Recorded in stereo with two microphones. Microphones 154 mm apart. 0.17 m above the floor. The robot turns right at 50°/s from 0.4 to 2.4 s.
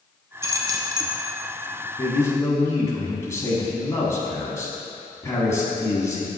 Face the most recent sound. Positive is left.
turn(degrees=20)  # may be behind; listen again after turning